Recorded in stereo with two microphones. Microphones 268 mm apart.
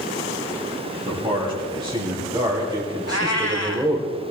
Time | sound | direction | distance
1.1 | a man speaking | 20° right (ahead or behind) | 3.5 m
3.1 | a cat meowing | 70° left (ahead or behind) | 1.4 m